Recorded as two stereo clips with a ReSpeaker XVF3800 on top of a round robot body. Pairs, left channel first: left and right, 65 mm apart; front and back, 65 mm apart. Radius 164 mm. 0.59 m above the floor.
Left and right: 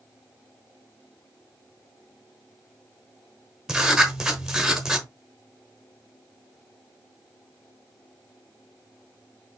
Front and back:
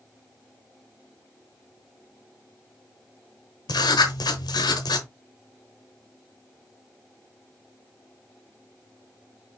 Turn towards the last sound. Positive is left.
turn(degrees=-5)